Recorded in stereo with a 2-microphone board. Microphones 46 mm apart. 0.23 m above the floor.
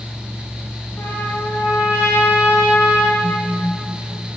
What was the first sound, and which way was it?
A trumpet, 70° left (ahead or behind).